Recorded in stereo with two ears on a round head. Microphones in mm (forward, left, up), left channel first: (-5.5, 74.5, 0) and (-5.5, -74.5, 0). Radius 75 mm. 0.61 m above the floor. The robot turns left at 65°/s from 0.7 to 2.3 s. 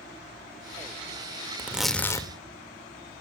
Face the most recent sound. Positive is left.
turn(degrees=150)